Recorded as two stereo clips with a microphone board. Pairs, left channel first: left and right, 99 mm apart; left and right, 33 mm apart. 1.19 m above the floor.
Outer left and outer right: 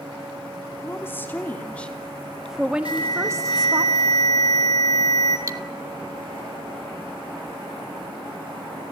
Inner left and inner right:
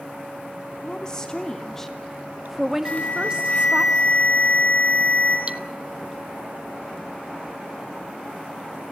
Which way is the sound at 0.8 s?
25° left (ahead or behind).